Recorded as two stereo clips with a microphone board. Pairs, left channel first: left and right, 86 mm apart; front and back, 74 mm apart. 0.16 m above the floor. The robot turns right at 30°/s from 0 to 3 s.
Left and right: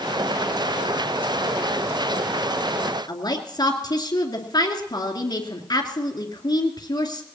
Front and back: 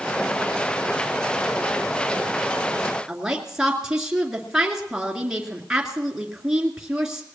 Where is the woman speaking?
100° left, 2.5 m.